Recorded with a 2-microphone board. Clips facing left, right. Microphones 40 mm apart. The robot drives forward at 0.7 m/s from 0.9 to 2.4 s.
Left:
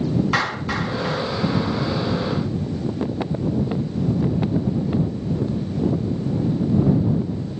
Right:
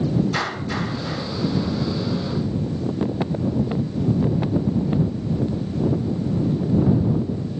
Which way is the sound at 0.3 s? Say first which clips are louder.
Left 3 dB; 75° left (ahead or behind).